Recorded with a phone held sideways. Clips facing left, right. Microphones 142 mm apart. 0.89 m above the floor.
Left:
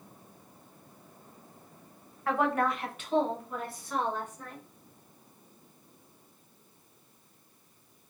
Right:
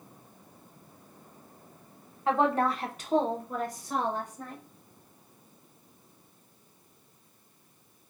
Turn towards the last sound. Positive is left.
turn(degrees=-35)  # may be behind; listen again after turning